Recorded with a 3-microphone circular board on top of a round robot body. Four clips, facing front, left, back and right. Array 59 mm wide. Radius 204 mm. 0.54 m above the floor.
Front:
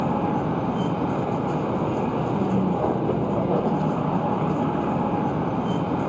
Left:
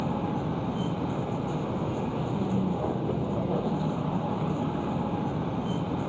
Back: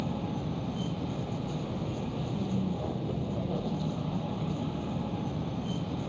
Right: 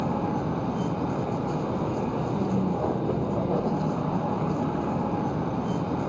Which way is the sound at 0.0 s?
15° right.